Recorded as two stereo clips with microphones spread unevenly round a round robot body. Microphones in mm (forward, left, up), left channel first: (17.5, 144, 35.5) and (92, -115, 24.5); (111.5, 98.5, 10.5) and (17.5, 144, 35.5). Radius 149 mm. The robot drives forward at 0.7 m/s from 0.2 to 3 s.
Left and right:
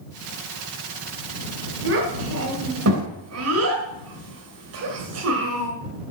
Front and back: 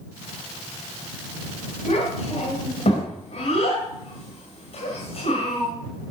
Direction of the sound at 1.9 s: 35° right.